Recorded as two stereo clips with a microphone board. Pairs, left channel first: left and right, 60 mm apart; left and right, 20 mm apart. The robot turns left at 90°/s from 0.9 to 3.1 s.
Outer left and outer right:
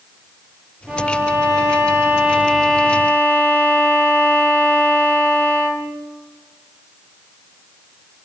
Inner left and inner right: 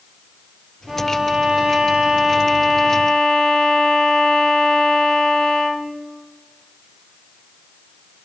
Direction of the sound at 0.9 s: 25° right.